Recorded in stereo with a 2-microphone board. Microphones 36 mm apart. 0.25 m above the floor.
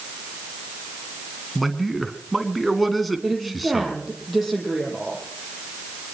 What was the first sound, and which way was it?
A man speaking, centre (ahead or behind).